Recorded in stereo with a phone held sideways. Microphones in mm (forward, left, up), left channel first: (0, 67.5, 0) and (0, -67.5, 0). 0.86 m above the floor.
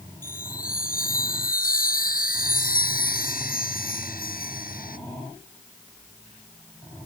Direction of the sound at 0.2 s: 90° left.